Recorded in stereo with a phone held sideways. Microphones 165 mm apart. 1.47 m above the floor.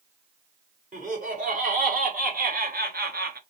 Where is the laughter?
55° right (ahead or behind), 2 m; by 3.4 s 80° right, 1.1 m.